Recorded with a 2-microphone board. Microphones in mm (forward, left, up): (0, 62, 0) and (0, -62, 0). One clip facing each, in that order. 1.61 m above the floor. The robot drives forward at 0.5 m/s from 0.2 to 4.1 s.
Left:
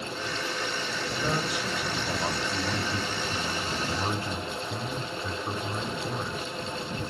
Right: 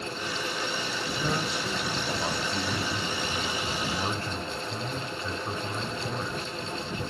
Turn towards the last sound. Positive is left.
turn(degrees=10)  # may be behind; listen again after turning